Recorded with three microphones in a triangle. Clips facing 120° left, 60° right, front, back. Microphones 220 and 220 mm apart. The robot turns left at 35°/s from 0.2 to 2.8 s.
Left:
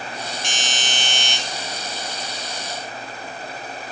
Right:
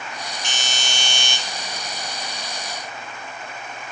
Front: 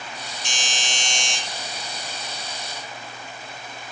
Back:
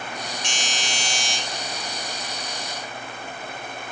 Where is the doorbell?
120° left, 2.5 m; by 1.4 s 90° left, 2.5 m.